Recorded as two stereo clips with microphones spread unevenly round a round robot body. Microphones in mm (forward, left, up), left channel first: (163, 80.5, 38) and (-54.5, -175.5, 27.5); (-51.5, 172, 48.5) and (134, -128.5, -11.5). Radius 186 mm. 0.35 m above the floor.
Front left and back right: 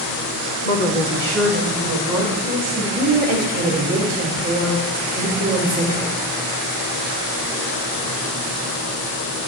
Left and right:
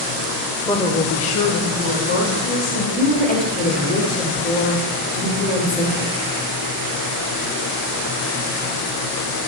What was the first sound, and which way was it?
A woman speaking, 30° left.